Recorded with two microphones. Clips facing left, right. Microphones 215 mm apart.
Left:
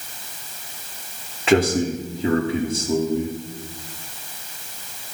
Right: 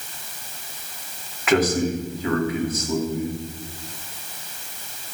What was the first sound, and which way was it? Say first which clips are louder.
A man speaking: left 2 dB; 30° left (ahead or behind).